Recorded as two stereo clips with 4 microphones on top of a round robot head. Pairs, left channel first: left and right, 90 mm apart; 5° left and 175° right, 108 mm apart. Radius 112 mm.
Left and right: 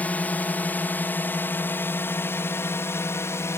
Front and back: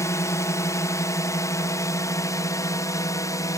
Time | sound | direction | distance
0.0 | a drone | 35° left | ?